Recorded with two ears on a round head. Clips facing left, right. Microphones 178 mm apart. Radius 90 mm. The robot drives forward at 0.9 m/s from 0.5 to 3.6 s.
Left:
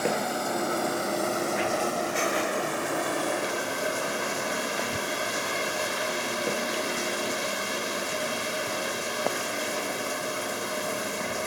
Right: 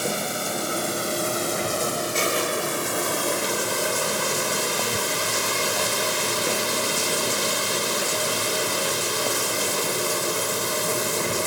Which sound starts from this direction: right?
Running water, at 0.0 s.